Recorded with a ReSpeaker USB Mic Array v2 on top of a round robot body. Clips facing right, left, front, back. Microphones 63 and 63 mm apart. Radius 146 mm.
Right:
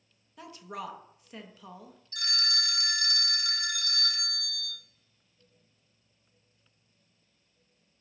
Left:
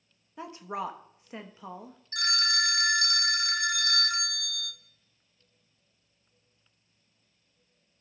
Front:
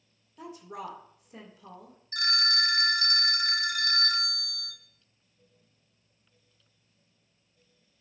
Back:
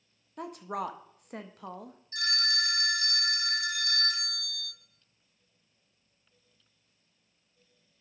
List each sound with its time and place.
0.4 s a woman speaking: 155° left, 0.7 m
2.1 s a phone ringing: 45° left, 0.9 m